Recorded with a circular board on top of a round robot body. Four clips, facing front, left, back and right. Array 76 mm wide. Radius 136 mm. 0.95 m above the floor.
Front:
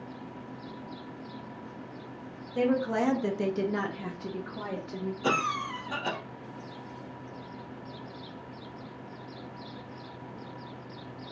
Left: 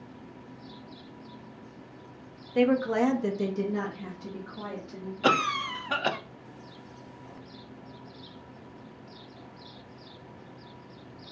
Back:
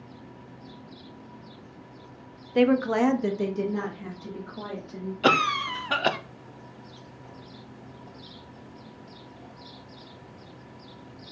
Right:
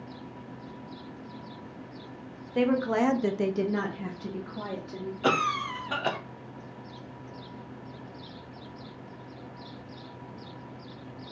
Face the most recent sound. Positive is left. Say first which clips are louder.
# left 1 dB, back 7 dB
turn(degrees=165)